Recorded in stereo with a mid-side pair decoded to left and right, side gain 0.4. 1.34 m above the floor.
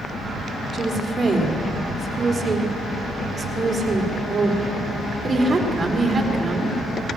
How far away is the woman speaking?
About 4 m.